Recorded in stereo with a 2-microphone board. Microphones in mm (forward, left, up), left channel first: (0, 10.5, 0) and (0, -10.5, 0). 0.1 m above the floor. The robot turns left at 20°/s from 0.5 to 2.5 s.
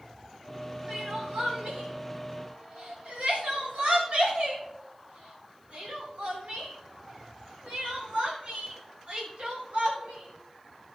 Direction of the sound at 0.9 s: 45° right (ahead or behind).